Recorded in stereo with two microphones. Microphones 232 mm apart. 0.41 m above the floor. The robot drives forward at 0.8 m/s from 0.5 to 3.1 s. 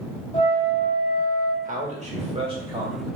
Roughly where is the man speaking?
Right.